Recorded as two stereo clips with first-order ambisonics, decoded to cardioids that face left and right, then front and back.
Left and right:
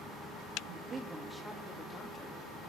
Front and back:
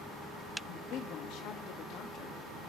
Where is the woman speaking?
40° right, 1.6 m; by 2.4 s 35° left, 2.0 m.